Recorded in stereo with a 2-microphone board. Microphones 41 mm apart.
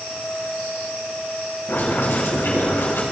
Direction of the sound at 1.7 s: 80° left.